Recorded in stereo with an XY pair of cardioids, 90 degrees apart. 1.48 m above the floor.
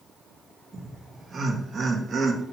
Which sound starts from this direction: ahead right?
Laughter, at 0.7 s.